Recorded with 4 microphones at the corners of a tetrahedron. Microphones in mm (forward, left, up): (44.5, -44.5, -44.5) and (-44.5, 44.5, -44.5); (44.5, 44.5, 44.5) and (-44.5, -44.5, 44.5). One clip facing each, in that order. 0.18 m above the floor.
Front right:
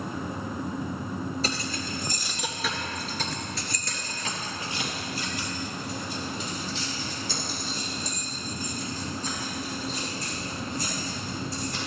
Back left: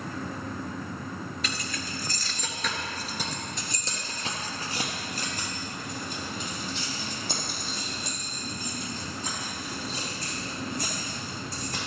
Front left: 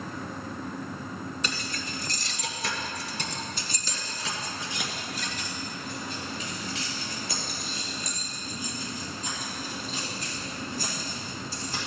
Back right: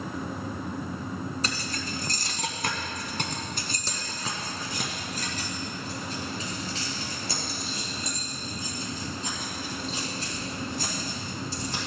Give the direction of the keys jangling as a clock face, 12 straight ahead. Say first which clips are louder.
Front right 4 dB, back right 2 dB; 3 o'clock.